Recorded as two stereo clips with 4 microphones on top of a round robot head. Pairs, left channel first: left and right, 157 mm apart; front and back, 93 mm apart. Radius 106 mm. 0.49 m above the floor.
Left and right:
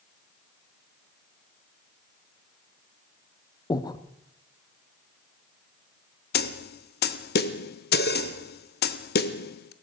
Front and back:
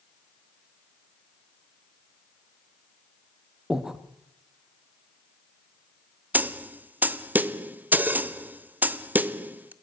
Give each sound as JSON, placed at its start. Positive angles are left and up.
{"t": 3.7, "sound": "breathing", "azimuth_deg": 110, "distance_m": 1.1}
{"t": 6.3, "sound": "a snare drum", "azimuth_deg": 105, "distance_m": 0.8}